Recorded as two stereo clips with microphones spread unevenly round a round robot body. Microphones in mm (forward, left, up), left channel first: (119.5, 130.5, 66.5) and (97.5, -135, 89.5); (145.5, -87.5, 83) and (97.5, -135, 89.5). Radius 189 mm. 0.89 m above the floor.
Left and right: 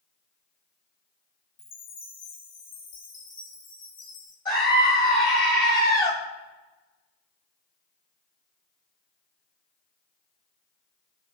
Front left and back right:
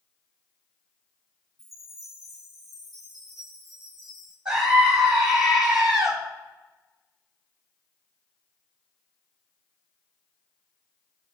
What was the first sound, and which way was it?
A chime, 135° left.